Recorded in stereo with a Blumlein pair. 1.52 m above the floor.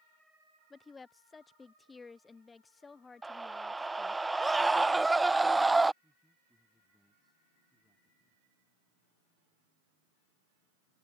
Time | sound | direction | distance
0.7 | a woman speaking | 15° left | ?
3.2 | a scream | 5° right | ?
6.0 | a man speaking | straight ahead | ?